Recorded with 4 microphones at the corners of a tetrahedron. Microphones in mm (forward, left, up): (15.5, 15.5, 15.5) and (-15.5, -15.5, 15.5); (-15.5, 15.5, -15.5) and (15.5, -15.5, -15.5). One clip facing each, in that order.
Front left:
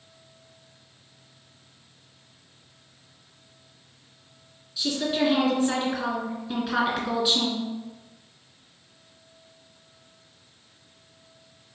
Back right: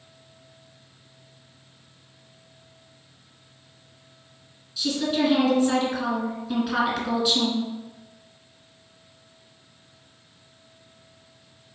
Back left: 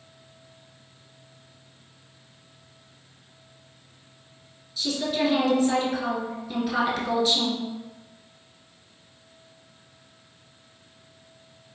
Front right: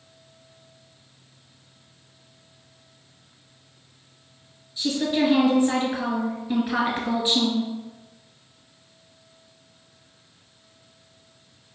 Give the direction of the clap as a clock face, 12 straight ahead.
I don't hear a clap.